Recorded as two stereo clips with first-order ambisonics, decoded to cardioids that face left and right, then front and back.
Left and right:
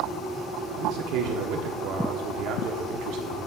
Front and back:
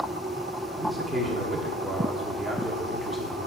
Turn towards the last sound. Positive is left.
turn(degrees=-95)